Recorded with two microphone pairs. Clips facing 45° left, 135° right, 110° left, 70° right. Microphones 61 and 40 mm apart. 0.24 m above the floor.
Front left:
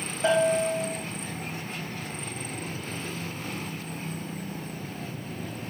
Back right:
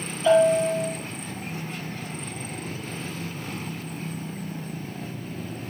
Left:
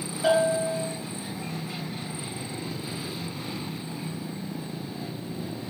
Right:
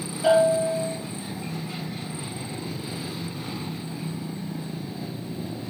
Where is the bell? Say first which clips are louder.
Back right 5 dB, right 4 dB; 25° left, 4 m.